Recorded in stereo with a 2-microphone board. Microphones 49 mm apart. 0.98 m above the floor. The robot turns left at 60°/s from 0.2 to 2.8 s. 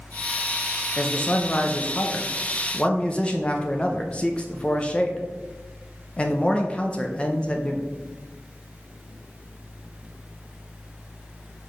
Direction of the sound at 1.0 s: 150° left.